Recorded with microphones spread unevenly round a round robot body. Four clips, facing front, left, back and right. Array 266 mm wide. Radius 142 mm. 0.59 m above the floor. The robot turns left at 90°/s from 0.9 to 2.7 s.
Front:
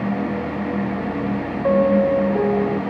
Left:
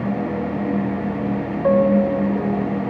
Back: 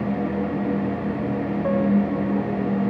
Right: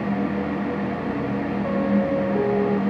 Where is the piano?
50° left; by 2.8 s 45° right.